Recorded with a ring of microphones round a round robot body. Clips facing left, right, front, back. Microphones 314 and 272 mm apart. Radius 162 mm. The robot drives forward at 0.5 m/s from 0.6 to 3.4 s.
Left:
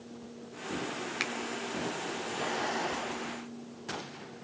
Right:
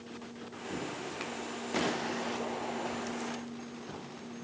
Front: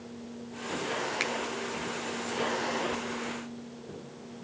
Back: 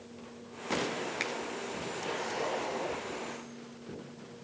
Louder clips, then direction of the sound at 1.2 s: Left 2 dB, front 3 dB; 70° left.